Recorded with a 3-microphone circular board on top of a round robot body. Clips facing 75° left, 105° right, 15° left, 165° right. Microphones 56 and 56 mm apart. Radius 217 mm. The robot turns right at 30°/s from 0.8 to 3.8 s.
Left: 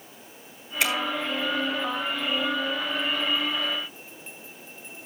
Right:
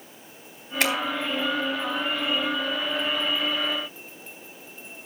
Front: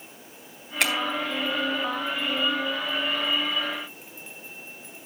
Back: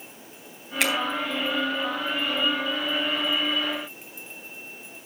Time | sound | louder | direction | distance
0.8 | a finger snap | right 1 dB, even | 75° right | 4 m